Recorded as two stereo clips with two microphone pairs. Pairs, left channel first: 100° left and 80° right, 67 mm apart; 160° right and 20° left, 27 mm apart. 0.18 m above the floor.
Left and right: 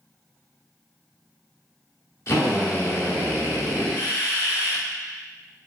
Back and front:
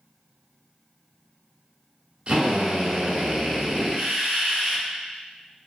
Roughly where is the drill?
Ahead left.